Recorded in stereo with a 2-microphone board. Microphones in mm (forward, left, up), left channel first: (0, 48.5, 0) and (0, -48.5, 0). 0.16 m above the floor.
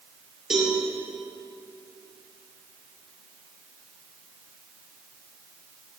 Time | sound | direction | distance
0.5 | a cowbell | 5° right (ahead or behind) | 4 m